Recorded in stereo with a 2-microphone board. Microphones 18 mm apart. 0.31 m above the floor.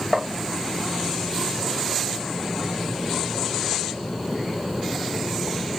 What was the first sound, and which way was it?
Tapping, 30° right (ahead or behind).